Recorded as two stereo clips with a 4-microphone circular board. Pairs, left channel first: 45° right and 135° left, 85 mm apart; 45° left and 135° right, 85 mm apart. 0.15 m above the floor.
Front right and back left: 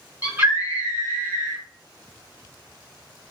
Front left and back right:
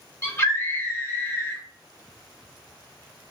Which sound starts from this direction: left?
A scream, at 0.2 s.